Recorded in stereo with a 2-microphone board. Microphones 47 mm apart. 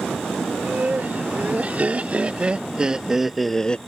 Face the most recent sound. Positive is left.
turn(degrees=25)  # may be behind; listen again after turning